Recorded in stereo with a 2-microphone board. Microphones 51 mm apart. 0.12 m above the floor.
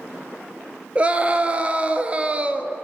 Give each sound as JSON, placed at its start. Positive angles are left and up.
{"t": 0.9, "sound": "a scream", "side_deg": -25, "distance_m": 1.5}